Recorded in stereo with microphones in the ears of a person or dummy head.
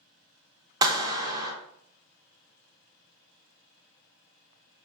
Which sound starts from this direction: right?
A clap, at 0.8 s.